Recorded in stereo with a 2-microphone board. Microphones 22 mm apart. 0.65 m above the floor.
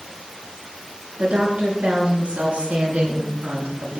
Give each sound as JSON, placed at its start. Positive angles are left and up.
{"t": 1.2, "sound": "a woman speaking", "side_deg": -65, "distance_m": 9.5}